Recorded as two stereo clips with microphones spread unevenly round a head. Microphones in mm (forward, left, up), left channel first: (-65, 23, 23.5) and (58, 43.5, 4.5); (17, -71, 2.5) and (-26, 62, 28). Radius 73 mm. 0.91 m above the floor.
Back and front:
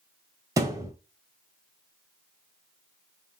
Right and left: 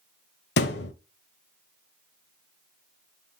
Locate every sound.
0.6 s a thud: 65° right, 1.1 m